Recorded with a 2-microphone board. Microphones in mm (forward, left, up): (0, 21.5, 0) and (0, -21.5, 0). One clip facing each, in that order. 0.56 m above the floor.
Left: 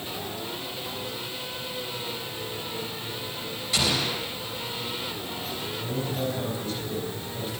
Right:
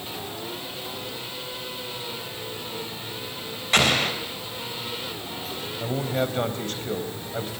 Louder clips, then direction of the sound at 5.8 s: Right 5 dB; 60° right (ahead or behind).